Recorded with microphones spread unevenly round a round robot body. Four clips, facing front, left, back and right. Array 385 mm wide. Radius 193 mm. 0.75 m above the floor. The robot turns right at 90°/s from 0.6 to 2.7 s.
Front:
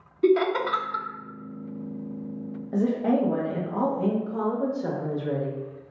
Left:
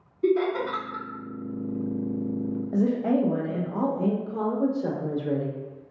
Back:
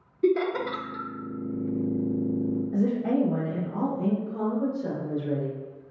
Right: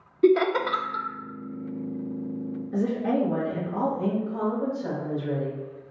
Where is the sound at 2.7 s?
110° left, 0.9 m.